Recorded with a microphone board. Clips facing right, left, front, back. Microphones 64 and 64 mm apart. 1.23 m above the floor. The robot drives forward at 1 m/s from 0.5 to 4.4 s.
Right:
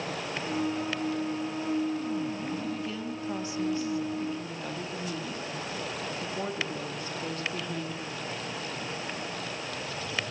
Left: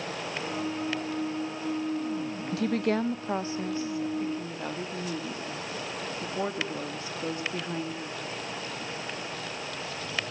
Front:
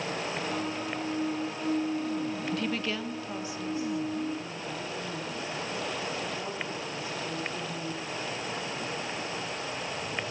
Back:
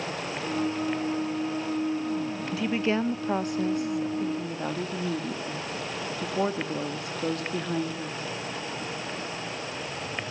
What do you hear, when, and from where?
2.5 s a woman speaking: 90° left, 0.7 m; by 8.2 s 160° left, 2.0 m